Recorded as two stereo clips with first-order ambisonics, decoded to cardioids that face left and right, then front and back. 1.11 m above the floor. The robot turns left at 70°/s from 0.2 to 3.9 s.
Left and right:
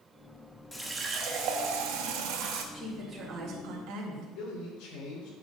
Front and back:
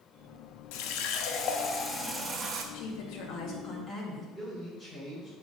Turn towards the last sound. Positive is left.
turn(degrees=85)